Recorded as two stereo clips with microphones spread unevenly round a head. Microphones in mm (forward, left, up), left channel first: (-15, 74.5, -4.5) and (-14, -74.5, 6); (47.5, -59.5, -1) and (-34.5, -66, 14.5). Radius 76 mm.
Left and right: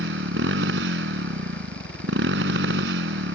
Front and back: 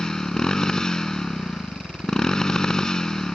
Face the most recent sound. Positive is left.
turn(degrees=-80)